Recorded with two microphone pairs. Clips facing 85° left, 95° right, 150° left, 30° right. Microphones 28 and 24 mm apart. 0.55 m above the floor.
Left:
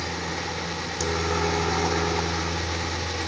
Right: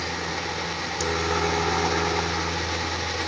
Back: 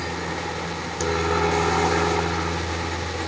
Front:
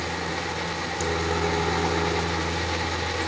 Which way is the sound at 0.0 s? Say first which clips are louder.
Right 1 dB, back 1 dB; 170° right.